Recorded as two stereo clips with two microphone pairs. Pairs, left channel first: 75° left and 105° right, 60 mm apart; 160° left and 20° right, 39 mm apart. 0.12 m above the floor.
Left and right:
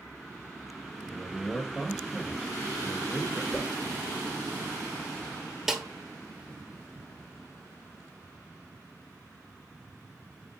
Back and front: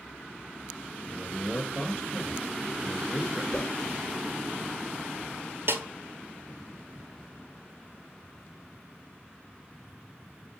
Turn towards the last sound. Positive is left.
turn(degrees=-20)